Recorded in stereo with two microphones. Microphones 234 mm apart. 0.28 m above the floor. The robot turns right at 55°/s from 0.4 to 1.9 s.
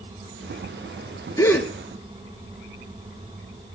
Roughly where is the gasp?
Centre.